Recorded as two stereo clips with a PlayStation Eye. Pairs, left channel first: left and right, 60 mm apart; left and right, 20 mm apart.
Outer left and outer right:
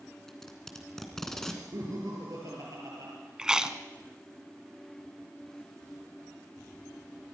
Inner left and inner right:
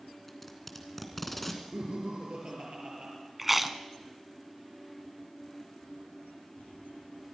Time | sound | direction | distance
0.3 | tape being pulled | 5° left (ahead or behind) | 2.5 m
1.7 | laughter | 70° right (ahead or behind) | 5 m
3.4 | chewing | 15° right (ahead or behind) | 1.1 m